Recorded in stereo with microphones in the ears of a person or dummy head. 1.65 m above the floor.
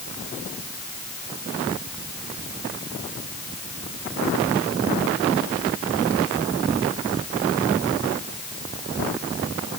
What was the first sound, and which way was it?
Only background noise.